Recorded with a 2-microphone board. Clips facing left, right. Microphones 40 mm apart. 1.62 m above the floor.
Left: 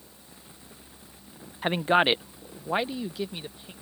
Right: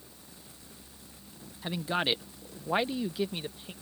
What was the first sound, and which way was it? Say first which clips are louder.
A man speaking: left 8 dB; 50° left (ahead or behind).